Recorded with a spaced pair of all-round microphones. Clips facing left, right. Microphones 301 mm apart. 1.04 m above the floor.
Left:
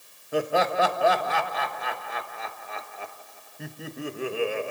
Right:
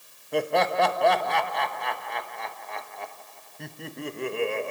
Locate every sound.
0.3 s laughter: 5° left (ahead or behind), 1.1 m